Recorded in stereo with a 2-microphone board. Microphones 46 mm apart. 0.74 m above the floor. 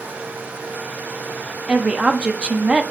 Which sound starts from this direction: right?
A woman speaking, at 1.7 s.